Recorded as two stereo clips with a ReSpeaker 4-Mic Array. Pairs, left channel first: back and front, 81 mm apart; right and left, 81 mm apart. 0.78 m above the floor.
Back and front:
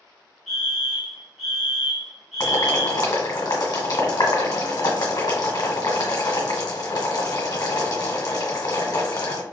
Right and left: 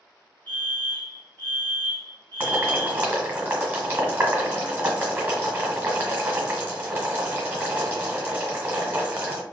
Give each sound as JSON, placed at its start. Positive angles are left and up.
{"t": 0.5, "sound": "a fire alarm", "azimuth_deg": -90, "distance_m": 1.4}
{"t": 2.4, "sound": "boiling", "azimuth_deg": 155, "distance_m": 1.3}